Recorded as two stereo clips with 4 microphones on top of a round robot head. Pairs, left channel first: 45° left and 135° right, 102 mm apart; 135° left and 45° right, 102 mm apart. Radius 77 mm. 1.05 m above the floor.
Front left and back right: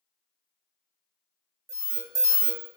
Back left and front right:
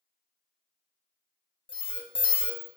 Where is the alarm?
170° left, 0.8 m.